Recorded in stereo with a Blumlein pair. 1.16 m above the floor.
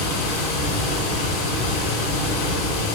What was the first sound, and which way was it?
Running water, 40° left.